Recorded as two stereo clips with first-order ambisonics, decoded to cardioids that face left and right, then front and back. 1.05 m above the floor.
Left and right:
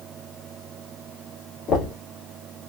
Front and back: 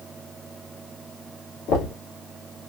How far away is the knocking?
About 2 m.